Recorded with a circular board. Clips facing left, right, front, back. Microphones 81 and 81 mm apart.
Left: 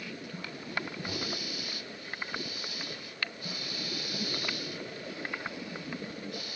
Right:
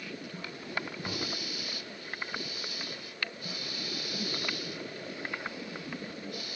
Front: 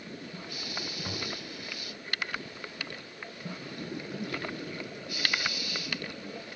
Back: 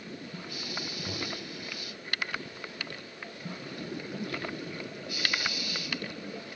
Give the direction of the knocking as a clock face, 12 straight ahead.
2 o'clock.